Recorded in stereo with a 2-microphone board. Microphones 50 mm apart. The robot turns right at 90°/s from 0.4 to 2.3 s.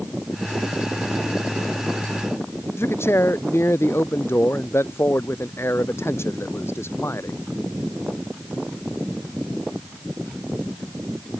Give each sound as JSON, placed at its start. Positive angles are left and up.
{"t": 2.8, "sound": "a man speaking", "side_deg": 60}